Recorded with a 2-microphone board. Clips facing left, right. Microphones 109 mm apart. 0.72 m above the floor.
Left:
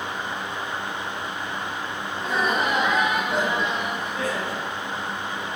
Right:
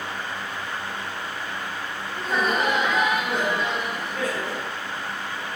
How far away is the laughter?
About 4 m.